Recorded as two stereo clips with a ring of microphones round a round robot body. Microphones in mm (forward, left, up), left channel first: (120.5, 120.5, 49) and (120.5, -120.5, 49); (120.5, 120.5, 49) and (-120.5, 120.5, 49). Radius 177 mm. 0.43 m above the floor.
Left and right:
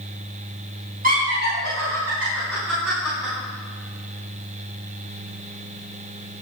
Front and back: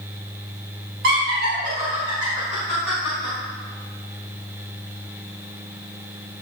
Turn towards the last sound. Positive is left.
turn(degrees=-70)